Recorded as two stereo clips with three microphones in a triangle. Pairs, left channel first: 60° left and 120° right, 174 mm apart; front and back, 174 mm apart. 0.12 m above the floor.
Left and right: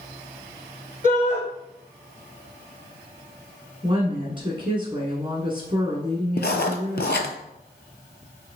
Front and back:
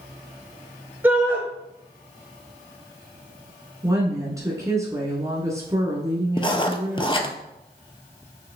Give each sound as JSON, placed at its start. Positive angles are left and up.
{"t": 1.0, "sound": "a shout", "azimuth_deg": -115, "distance_m": 1.6}
{"t": 3.8, "sound": "a woman speaking", "azimuth_deg": -130, "distance_m": 1.1}
{"t": 6.4, "sound": "writing", "azimuth_deg": 60, "distance_m": 0.6}